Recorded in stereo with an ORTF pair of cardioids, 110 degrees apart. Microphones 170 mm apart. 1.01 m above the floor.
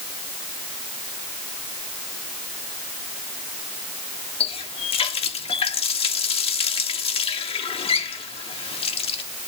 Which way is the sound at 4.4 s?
35° left.